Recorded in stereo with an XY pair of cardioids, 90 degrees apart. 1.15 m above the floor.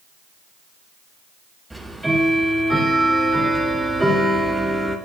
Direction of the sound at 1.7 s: 15° right.